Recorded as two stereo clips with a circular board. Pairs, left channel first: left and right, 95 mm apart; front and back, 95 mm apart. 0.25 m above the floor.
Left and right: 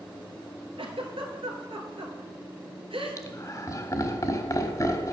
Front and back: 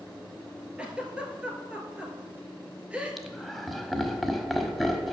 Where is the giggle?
100° right, 1.4 m.